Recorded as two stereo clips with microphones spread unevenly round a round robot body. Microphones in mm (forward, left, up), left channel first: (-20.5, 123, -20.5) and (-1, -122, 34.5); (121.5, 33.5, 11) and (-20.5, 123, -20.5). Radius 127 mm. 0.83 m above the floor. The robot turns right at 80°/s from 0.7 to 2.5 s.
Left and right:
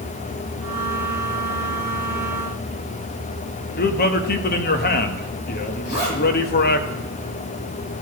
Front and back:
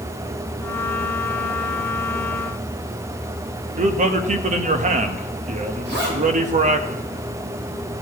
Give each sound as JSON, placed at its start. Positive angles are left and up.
{"t": 3.8, "sound": "a man speaking", "azimuth_deg": 130, "distance_m": 1.0}
{"t": 5.8, "sound": "a zipper", "azimuth_deg": 140, "distance_m": 3.5}